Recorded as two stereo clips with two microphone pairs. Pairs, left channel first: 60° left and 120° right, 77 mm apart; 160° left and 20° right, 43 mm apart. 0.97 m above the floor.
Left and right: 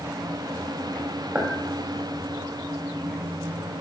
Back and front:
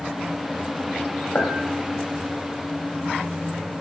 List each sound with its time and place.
1.4 s a clink: 175° left, 3 m